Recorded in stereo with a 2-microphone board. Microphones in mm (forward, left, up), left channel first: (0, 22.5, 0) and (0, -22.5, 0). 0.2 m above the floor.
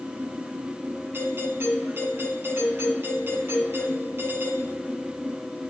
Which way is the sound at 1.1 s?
60° right (ahead or behind).